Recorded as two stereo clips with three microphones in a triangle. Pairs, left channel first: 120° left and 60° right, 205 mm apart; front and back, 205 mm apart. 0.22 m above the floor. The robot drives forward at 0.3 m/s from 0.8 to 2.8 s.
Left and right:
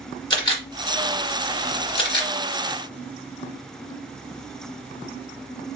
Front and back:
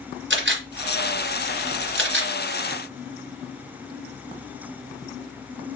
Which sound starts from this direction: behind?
A camera shutter, at 0.3 s.